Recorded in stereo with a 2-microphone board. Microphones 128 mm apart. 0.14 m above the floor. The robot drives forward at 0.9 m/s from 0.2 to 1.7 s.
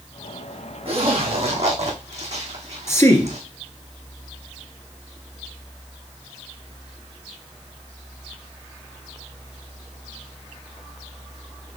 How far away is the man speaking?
About 2 m.